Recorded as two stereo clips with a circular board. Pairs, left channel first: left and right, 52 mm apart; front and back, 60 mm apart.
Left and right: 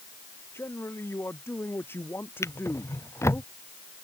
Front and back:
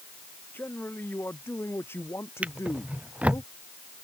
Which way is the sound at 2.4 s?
115° left.